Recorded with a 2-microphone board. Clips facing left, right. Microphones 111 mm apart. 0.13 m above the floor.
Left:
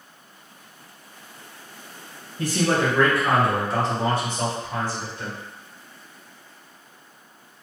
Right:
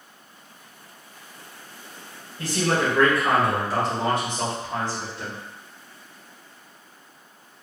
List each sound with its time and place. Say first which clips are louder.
2.4 s a man speaking: left 2 dB; 20° left (ahead or behind), 1.8 m; by 5.4 s 30° right (ahead or behind), 3 m